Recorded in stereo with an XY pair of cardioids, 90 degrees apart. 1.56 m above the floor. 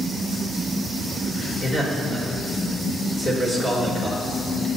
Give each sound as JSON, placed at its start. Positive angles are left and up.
{"t": 1.6, "sound": "a man speaking", "azimuth_deg": 10, "distance_m": 5.0}